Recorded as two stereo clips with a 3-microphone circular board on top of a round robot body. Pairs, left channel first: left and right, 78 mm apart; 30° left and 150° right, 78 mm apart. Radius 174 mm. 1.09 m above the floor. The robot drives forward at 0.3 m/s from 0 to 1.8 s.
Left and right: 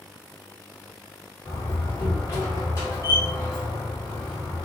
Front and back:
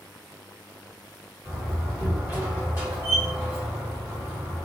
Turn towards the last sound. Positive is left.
turn(degrees=150)